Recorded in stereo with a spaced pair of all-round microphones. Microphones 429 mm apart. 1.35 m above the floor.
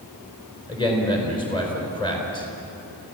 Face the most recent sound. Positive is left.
turn(degrees=10)  # may be behind; listen again after turning